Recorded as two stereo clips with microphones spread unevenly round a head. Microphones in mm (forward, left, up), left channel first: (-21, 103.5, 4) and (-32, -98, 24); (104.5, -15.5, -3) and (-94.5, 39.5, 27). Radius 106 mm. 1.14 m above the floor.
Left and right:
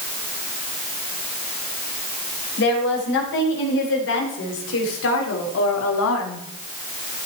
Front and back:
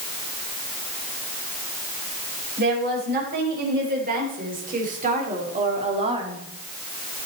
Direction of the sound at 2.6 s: 120° left.